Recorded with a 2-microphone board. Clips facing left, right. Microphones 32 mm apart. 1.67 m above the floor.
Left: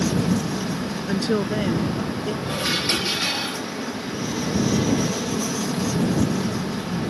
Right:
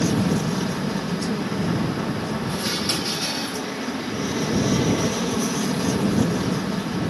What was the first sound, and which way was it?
An aircraft, 10° right (ahead or behind).